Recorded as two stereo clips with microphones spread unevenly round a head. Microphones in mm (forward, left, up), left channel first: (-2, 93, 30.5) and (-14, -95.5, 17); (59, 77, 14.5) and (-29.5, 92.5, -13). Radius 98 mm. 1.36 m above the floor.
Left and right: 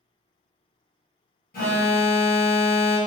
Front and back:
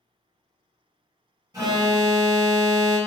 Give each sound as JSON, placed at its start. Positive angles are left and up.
{"t": 1.5, "sound": "an alarm", "azimuth_deg": 130, "distance_m": 1.3}